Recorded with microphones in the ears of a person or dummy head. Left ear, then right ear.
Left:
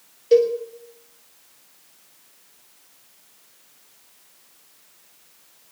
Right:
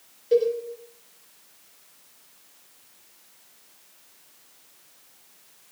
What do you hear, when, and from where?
0.3 s a cowbell: 30° left (ahead or behind), 5.5 m